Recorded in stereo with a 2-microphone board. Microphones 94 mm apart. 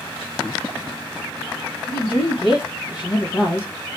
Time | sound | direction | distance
1.9 | a woman speaking | 65° left (ahead or behind) | 1.3 m